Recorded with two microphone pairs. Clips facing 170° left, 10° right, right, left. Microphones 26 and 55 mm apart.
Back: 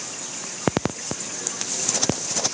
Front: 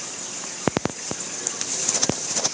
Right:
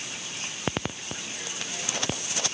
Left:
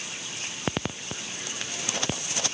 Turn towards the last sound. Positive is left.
No sound to turn to.